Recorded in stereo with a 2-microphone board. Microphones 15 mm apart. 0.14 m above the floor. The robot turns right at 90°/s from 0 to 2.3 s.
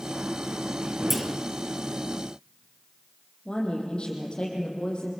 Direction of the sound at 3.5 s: 55° left (ahead or behind).